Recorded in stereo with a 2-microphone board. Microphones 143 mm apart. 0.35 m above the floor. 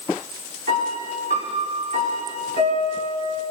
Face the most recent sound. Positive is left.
turn(degrees=-80)